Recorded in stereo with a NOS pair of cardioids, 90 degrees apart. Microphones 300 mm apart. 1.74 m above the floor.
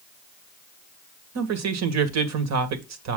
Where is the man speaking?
65° right, 1.9 m.